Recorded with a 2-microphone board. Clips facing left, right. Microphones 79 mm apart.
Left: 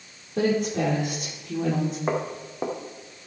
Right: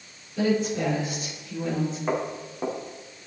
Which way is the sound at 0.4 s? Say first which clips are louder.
Left 1 dB; 65° left (ahead or behind).